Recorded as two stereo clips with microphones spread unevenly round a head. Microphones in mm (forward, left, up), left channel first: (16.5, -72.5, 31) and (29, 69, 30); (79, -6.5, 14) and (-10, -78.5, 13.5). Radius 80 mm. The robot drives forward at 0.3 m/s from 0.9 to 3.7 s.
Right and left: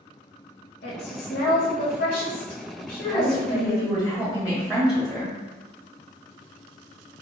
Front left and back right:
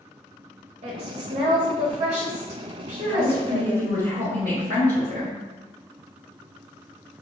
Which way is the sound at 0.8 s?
115° right.